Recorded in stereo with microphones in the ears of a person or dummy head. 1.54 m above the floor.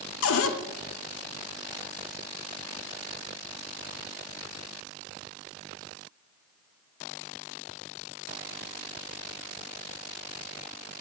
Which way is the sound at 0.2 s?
80° left.